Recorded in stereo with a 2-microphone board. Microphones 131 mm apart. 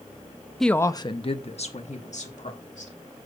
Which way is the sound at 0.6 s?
Centre (ahead or behind).